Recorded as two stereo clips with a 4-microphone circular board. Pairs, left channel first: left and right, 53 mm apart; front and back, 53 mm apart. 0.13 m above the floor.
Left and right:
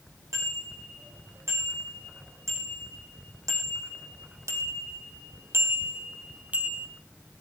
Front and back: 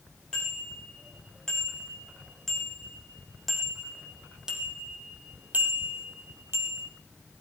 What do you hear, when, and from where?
0.3 s a bicycle bell: 75° right, 8.5 m; by 6.9 s 160° right, 3 m